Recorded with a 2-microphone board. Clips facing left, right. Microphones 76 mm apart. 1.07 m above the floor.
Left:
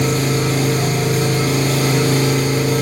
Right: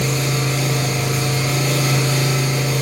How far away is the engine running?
About 9.5 m.